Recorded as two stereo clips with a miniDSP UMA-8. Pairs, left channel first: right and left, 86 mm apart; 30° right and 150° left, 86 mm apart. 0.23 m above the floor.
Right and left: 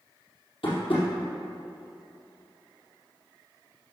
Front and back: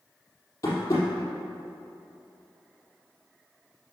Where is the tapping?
85° right, 3.5 m.